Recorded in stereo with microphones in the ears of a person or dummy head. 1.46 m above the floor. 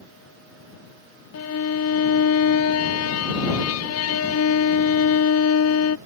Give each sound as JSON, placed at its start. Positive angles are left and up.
{"t": 1.3, "sound": "a violin", "side_deg": 80}